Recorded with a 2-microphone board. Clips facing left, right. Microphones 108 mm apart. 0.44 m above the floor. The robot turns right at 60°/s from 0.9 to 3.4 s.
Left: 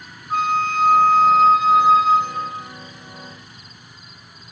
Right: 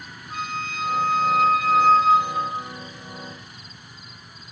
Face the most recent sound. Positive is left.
turn(degrees=-100)